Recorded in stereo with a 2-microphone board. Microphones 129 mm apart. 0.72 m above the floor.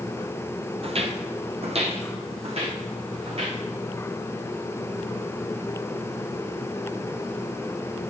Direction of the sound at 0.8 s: 50° right (ahead or behind).